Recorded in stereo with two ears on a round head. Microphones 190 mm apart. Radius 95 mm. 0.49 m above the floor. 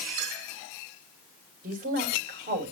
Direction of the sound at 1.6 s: 40° right (ahead or behind).